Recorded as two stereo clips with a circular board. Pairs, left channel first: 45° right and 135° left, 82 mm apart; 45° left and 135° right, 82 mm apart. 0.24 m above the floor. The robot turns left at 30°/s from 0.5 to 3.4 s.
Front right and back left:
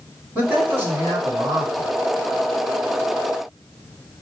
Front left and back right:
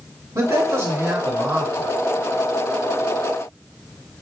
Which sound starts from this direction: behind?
A man speaking, at 0.3 s.